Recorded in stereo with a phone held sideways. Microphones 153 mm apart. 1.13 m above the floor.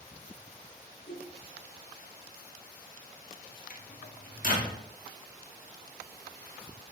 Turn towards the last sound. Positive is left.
turn(degrees=60)  # may be behind; listen again after turning